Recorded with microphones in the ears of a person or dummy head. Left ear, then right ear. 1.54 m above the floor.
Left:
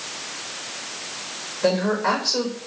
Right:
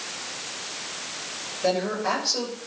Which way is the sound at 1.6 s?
50° left (ahead or behind).